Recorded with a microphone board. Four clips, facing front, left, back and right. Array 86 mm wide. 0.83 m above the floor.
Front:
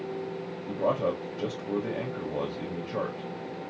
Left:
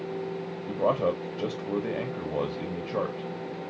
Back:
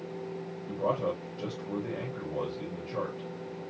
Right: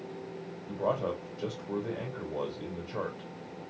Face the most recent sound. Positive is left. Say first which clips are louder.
# left 5 dB, front 3 dB
turn(degrees=70)